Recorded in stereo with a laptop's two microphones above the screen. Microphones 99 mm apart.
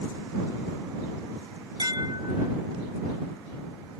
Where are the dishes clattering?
55° right (ahead or behind).